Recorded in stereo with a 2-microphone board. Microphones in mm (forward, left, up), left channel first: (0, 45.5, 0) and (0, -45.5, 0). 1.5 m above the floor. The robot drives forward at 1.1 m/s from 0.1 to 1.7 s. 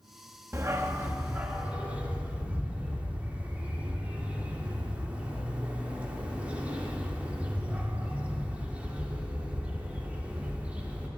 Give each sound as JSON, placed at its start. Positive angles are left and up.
{"t": 0.5, "sound": "a dog barking", "side_deg": -30, "distance_m": 1.0}